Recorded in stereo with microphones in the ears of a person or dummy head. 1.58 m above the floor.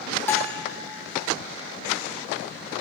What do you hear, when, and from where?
0.3 s a bell: 15° left (ahead or behind), 1.7 m